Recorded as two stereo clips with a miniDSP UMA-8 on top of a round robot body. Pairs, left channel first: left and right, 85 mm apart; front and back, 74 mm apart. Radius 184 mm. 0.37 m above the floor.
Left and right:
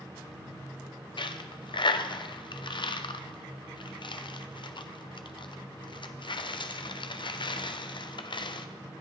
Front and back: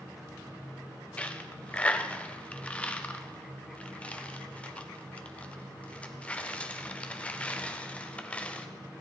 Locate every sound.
1.2 s a dropped coin: 70° left, 0.8 m